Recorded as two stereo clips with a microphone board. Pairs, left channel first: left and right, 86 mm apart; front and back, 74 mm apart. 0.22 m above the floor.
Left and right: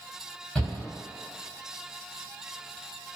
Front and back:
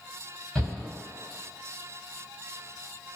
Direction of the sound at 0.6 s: 50° left.